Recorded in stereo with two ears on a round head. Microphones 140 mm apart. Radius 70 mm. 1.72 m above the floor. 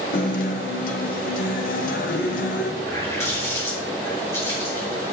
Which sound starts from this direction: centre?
A running tap, at 2.8 s.